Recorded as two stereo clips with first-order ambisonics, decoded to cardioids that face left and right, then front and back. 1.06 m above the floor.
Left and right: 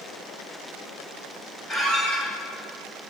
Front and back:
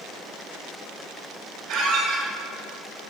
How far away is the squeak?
About 1.5 m.